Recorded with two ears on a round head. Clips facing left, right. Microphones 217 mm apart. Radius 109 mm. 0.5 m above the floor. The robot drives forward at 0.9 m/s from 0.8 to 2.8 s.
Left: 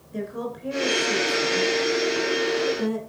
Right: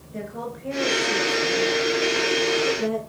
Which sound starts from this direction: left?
A woman speaking, at 0.1 s.